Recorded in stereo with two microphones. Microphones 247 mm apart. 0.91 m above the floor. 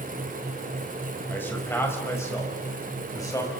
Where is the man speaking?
10° left (ahead or behind), 5.5 m; by 3.5 s 15° left (ahead or behind), 6.5 m.